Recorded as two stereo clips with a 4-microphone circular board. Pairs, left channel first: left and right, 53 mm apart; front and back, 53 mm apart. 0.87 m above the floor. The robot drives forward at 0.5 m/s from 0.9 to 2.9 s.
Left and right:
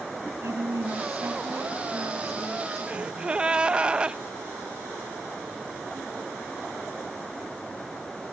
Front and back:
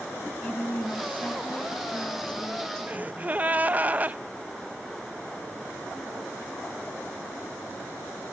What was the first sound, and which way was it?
A woman speaking, 65° right.